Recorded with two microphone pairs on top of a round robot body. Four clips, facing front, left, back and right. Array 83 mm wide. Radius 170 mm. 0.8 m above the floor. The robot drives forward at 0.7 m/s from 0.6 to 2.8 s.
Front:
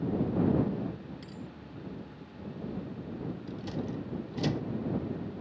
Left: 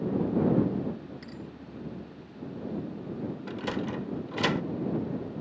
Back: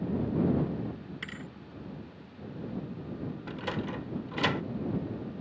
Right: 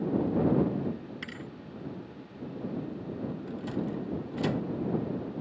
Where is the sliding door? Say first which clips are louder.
Left 2 dB, back 4 dB; 135° left.